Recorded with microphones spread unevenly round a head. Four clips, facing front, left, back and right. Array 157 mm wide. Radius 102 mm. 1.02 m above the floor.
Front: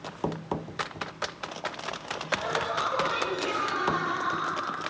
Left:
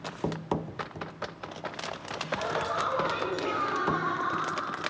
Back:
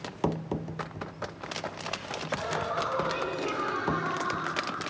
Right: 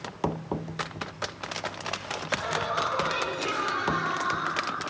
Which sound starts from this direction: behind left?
Laughter, at 2.3 s.